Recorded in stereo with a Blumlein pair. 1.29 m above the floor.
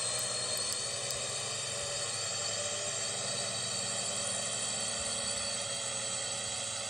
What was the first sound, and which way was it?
A drone, 5° left.